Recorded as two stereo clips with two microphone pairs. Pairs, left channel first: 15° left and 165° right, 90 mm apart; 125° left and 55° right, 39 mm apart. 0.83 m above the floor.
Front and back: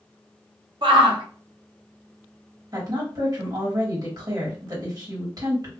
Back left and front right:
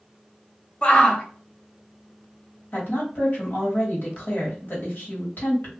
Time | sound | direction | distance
0.8 | a shout | straight behind | 0.9 m
2.7 | a woman speaking | 150° left | 1.5 m